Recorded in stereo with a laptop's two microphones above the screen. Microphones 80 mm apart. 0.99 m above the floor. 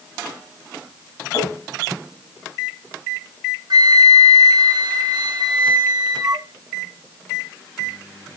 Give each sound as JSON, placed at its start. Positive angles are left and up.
{"t": 1.3, "sound": "tapping", "side_deg": 50, "distance_m": 6.0}
{"t": 3.7, "sound": "a flute", "side_deg": -65, "distance_m": 1.2}